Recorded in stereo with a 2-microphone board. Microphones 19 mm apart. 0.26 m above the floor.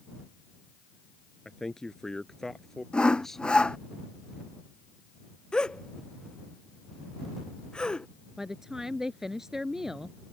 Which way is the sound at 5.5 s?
55° left (ahead or behind).